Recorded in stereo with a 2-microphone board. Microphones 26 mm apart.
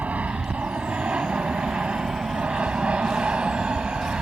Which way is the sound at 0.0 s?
70° right (ahead or behind).